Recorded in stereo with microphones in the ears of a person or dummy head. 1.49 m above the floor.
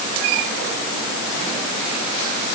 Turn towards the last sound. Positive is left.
No sound to turn to.